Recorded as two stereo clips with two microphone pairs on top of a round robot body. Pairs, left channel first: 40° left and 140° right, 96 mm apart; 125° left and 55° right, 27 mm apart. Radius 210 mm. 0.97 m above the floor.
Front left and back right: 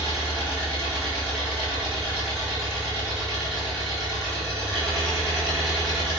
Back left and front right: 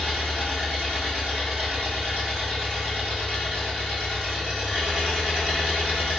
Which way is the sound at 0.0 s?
50° right.